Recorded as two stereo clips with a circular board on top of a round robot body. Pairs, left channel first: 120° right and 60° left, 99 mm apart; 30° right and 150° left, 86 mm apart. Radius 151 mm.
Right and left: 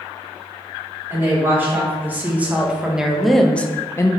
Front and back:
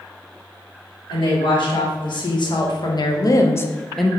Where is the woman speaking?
5° right, 2 m; by 4.1 s 130° right, 0.7 m.